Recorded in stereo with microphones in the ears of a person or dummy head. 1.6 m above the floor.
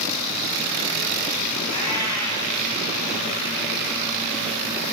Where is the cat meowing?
15° left (ahead or behind), 5.5 m.